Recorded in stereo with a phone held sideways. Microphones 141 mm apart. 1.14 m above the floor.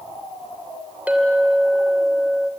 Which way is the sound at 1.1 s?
10° right (ahead or behind).